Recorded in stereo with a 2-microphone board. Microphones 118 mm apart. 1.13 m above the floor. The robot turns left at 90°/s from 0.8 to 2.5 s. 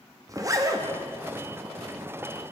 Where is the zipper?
30° right (ahead or behind), 0.6 m; by 0.9 s 25° right (ahead or behind), 0.6 m.